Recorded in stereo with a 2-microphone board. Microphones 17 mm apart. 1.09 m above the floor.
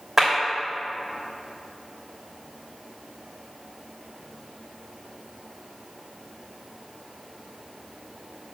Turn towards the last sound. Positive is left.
turn(degrees=-25)  # may be behind; listen again after turning